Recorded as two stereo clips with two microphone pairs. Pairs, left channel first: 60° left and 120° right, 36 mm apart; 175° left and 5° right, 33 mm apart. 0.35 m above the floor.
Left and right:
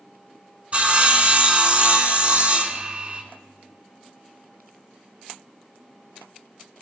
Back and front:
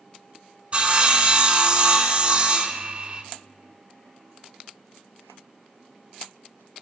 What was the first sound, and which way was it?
Sawing, 65° right.